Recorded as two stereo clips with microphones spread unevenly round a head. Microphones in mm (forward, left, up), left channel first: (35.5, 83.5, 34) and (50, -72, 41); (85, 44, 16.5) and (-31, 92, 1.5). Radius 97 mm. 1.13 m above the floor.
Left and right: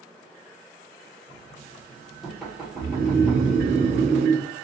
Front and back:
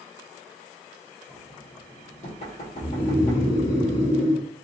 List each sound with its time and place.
1.3 s knocking: 5° left, 1.2 m
2.8 s snoring: 90° right, 0.7 m